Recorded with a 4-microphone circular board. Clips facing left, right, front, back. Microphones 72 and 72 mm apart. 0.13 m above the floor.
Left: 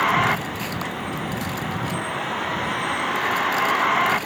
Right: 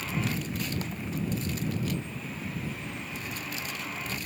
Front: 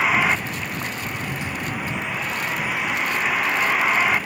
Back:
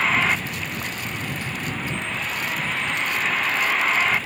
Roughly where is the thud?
Left.